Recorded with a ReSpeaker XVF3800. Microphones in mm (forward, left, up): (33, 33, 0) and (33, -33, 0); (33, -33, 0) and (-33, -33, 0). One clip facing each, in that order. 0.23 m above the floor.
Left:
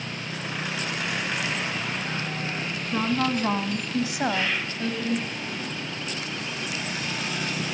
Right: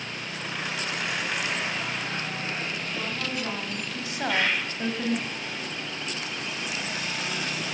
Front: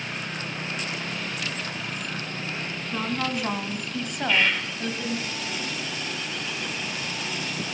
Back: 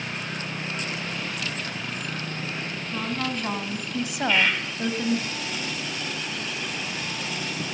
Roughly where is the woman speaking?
Left.